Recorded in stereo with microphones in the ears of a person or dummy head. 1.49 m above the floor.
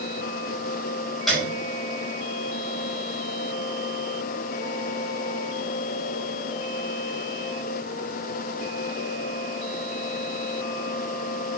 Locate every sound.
1.3 s a piano: 5° right (ahead or behind), 5 m